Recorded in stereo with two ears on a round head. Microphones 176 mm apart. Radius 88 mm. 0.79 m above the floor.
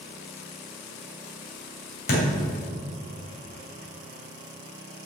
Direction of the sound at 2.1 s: 55° left (ahead or behind).